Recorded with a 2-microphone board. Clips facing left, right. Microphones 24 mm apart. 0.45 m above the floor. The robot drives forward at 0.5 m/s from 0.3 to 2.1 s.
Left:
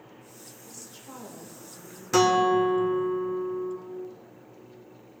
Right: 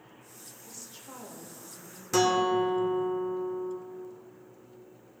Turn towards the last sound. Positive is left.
turn(degrees=20)  # may be behind; listen again after turning